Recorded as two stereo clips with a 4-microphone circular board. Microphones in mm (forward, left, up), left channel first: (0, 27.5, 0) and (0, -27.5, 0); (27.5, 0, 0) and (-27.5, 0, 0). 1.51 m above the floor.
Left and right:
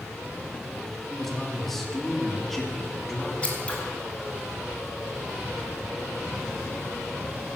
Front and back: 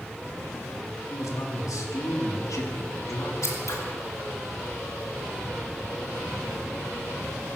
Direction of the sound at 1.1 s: 5° left.